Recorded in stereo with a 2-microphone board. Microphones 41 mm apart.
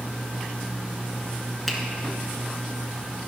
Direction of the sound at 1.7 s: 10° left (ahead or behind).